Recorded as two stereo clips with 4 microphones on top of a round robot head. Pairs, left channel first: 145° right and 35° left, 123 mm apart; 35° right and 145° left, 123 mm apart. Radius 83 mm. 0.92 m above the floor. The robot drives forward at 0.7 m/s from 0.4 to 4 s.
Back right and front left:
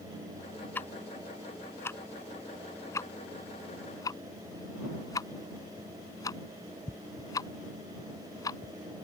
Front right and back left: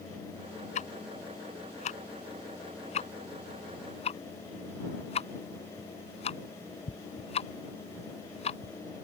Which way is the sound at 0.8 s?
65° right.